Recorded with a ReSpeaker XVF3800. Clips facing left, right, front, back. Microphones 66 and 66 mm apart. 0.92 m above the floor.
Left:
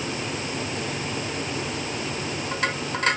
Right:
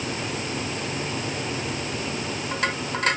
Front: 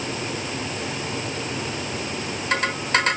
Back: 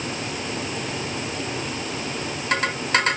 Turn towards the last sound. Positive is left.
No sound to turn to.